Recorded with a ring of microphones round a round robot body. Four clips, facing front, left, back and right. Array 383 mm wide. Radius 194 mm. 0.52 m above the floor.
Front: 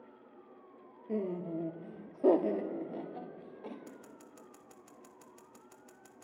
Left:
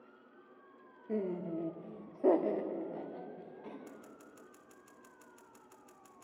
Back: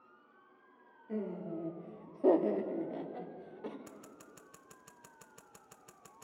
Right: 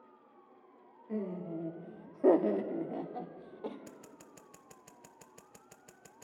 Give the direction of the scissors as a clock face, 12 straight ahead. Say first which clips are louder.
Even, front 2 dB; 4 o'clock.